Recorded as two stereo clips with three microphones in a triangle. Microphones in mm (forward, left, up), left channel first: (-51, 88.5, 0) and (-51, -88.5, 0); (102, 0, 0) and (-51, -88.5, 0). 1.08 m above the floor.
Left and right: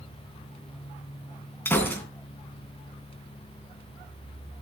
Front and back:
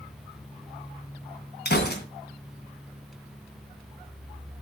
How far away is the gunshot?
About 3 m.